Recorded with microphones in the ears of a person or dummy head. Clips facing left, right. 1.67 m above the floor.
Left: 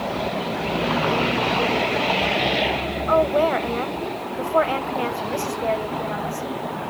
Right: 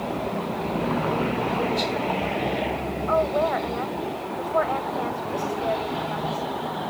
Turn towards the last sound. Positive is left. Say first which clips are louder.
# left 4 dB
turn(degrees=45)  # may be behind; listen again after turning